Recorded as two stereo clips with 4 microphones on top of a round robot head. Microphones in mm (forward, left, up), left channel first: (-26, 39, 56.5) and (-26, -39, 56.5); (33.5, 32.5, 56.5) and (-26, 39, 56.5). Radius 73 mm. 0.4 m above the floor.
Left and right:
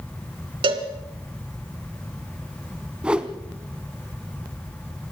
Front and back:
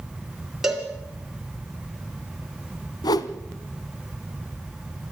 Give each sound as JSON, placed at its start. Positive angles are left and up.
{"t": 0.6, "sound": "a cowbell", "azimuth_deg": -100, "distance_m": 2.5}
{"t": 3.0, "sound": "a whoosh", "azimuth_deg": -10, "distance_m": 0.9}